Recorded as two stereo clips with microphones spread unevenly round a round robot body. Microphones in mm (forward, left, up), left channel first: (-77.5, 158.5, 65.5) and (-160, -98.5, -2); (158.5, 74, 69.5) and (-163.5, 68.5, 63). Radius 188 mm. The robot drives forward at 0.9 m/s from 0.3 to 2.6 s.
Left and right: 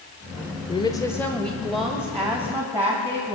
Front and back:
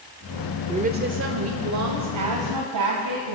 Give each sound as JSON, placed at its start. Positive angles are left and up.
{"t": 0.7, "sound": "a woman speaking", "azimuth_deg": 150, "distance_m": 1.0}